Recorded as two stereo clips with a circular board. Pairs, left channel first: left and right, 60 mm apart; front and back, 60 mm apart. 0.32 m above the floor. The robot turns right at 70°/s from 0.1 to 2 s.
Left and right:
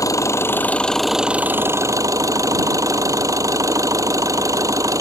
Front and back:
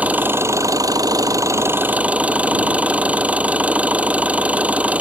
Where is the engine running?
115° left; by 5.0 s 115° right.